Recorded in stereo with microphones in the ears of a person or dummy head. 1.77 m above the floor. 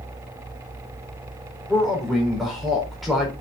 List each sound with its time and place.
1.7 s a man speaking: centre (ahead or behind), 5 m